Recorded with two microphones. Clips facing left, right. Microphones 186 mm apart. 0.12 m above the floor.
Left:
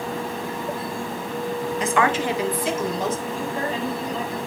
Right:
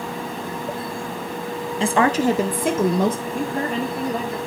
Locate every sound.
1.8 s a woman speaking: 30° right (ahead or behind), 1.2 m; by 3.2 s 60° right (ahead or behind), 2.5 m
3.3 s a woman speaking: 60° right (ahead or behind), 3 m